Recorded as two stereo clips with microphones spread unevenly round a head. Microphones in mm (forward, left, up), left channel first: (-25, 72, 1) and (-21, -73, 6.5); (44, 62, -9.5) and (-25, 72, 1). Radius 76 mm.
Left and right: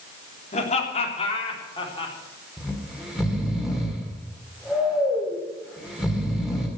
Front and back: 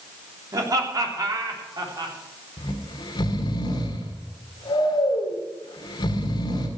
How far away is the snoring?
About 2.5 m.